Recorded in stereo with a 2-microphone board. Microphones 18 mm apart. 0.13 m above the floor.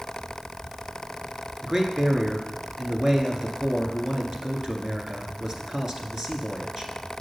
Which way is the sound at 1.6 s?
35° right (ahead or behind).